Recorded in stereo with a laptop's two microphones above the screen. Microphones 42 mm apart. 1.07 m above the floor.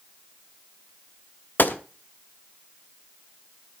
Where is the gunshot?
50° left (ahead or behind), 1.0 m.